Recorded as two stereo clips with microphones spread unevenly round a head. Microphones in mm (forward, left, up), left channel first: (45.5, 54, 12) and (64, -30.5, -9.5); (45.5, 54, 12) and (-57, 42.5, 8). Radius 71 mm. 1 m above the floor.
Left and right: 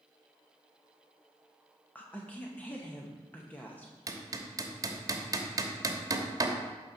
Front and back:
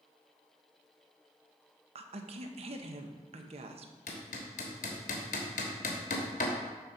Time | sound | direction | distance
1.9 | a woman speaking | 170° right | 0.8 m
4.1 | hammering | 25° right | 1.1 m